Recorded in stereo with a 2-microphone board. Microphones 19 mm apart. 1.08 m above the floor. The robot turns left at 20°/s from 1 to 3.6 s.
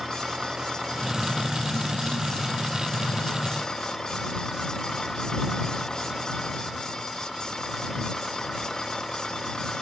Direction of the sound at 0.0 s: 155° right.